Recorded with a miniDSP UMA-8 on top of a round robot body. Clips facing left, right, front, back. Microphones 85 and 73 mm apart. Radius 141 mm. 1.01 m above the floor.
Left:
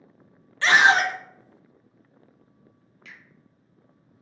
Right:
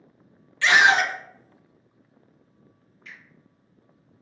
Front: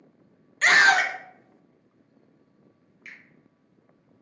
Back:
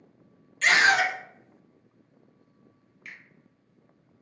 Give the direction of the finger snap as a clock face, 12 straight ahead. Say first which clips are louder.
Right 2 dB, back 1 dB; 9 o'clock.